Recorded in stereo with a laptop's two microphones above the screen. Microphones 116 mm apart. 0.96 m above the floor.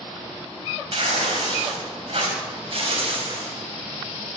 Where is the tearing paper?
50° right (ahead or behind), 4 m.